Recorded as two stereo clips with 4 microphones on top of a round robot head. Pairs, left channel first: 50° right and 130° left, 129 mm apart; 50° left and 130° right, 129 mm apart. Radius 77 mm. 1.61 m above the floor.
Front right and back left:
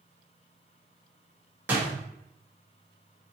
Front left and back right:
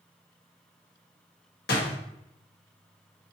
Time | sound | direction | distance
1.7 | a door slam | 50° left | 1.3 m